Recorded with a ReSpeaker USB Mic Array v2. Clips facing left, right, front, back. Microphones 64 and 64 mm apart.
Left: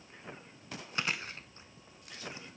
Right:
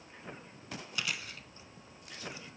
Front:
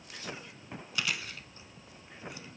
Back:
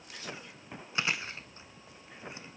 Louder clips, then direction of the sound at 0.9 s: Left 4 dB, back 2 dB; 130° left.